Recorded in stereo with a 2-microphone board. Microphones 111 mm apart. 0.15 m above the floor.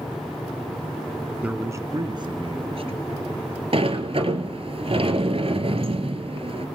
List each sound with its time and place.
1.4 s a man speaking: 10° right (ahead or behind), 1.0 m; by 3.6 s 65° right (ahead or behind), 3 m
3.7 s a sliding door: 60° right (ahead or behind), 1.6 m